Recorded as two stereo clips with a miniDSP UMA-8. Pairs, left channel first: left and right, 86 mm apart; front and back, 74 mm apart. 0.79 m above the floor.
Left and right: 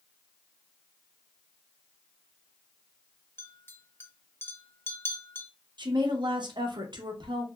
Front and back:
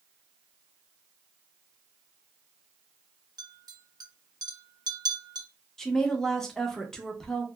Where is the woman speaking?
80° right, 0.8 m.